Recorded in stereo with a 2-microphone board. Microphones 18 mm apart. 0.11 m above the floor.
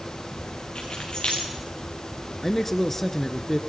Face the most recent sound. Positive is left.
turn(degrees=15)  # may be behind; listen again after turning